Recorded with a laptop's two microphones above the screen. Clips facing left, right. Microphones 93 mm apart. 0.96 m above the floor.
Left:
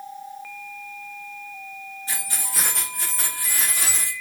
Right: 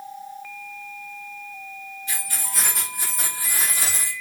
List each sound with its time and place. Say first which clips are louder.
2.1 s keys jangling: even; 35° left (ahead or behind), 0.6 m; by 4.1 s 35° right (ahead or behind), 1.4 m